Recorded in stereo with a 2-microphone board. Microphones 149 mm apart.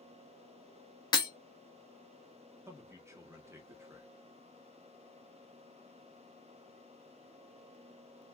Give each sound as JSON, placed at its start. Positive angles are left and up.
{"t": 1.1, "sound": "breaking glass", "side_deg": 30, "distance_m": 0.8}
{"t": 2.7, "sound": "a man speaking", "side_deg": -20, "distance_m": 0.8}